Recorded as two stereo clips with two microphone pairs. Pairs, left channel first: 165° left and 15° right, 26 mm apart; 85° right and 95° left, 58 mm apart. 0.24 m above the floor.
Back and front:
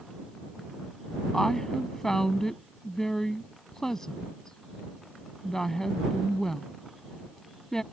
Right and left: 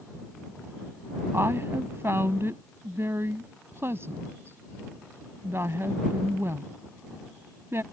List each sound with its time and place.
1.3 s a woman speaking: 100° left